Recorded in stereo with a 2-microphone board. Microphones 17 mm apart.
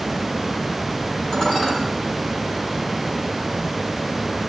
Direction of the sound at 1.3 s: 40° left (ahead or behind).